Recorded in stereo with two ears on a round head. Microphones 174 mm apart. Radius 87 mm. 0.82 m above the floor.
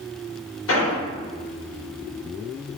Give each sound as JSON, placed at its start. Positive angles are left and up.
{"t": 0.7, "sound": "an explosion", "side_deg": 75, "distance_m": 1.5}